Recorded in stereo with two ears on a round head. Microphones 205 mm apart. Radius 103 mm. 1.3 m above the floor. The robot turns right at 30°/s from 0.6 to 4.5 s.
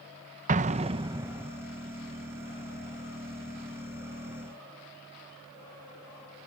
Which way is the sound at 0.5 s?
30° right (ahead or behind).